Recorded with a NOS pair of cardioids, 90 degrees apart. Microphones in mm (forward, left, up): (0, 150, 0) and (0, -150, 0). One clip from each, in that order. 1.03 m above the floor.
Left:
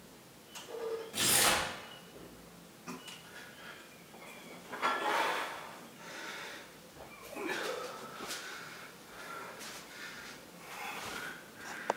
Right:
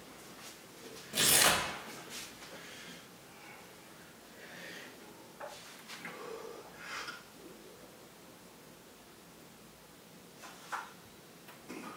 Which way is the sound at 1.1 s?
30° right.